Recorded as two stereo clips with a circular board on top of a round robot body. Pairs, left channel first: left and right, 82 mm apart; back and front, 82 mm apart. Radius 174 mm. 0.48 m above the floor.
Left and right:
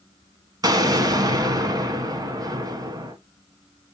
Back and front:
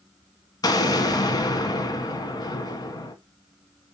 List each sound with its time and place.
0.6 s an explosion: 135° right, 1.4 m